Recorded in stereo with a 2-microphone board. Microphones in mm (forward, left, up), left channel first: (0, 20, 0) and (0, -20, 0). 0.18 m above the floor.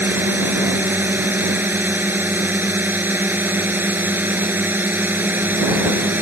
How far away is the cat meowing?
I don't hear a cat meowing.